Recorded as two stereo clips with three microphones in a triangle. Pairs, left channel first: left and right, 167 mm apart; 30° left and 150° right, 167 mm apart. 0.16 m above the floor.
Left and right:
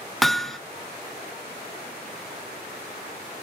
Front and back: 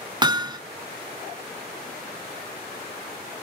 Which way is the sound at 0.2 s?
Straight behind.